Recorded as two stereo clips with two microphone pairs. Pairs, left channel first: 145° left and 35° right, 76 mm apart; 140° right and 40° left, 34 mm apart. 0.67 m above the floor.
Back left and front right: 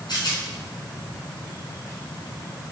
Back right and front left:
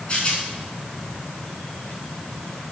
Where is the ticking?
No ticking in this recording.